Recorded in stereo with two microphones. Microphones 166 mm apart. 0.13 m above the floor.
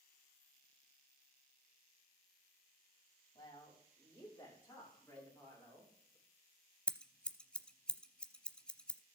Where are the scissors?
5° left (ahead or behind), 0.7 m.